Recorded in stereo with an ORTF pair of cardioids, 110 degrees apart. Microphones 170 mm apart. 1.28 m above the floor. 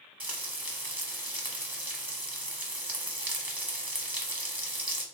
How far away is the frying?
About 1.0 m.